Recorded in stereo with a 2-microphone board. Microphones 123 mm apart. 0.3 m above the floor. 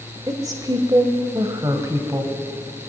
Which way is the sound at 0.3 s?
30° right (ahead or behind).